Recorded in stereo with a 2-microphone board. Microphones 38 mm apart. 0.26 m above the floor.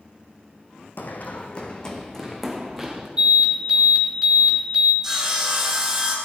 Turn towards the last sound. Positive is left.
turn(degrees=-10)  # may be behind; listen again after turning